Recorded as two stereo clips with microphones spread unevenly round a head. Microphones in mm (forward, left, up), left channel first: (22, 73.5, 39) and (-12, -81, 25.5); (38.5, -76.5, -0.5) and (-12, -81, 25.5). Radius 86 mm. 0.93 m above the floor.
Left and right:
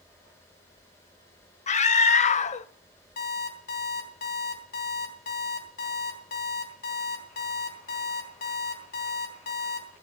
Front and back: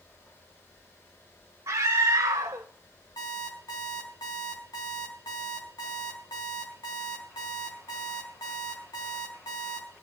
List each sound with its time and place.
1.7 s a scream: 120° left, 0.7 m
3.2 s an alarm clock: 45° left, 3.5 m